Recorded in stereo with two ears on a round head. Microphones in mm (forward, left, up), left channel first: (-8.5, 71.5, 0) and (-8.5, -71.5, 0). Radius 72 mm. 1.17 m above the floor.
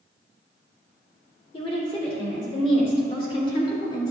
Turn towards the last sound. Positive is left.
turn(degrees=25)  # may be behind; listen again after turning